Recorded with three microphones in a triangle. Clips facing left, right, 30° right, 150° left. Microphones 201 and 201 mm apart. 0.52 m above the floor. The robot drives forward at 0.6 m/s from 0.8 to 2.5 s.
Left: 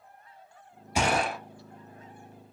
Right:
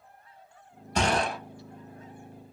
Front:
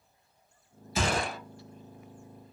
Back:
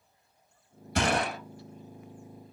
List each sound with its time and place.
0.9 s a gunshot: 170° left, 1.2 m